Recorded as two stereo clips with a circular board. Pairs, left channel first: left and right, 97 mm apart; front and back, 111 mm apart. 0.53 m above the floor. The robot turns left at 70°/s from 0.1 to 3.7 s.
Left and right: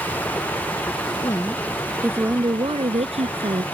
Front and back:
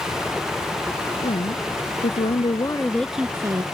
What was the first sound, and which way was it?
A woman speaking, 40° left.